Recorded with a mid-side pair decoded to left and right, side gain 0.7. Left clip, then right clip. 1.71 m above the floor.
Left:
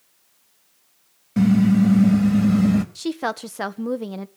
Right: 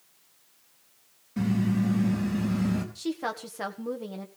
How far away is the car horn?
About 4 m.